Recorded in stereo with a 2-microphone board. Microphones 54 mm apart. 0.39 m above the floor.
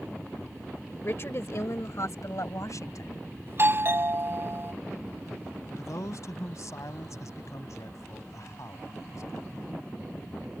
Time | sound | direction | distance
1.0 | a woman speaking | 45° left (ahead or behind) | ?
3.5 | a doorbell | 40° right (ahead or behind) | ?
5.8 | a man speaking | 60° left (ahead or behind) | ?